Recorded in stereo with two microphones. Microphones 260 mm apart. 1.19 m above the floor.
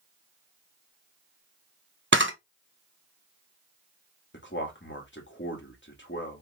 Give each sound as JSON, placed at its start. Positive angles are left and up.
{"t": 2.1, "sound": "a camera shutter", "side_deg": -45, "distance_m": 0.6}
{"t": 4.3, "sound": "a man speaking", "side_deg": 45, "distance_m": 1.4}